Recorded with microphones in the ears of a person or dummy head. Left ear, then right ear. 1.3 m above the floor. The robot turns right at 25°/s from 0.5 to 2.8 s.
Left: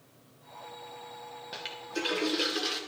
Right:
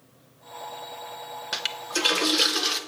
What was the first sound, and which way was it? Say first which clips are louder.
A toilet flushing: right 9 dB; 50° right.